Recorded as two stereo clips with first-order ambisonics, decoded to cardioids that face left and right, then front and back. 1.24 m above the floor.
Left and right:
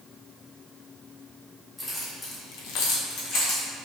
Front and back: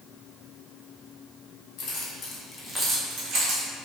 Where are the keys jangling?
15° left, 1.3 m; by 3.7 s 140° left, 1.5 m.